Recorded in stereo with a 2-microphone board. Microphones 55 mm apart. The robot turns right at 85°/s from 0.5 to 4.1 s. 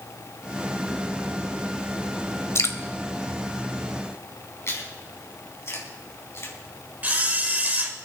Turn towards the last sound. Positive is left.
turn(degrees=-30)  # may be behind; listen again after turning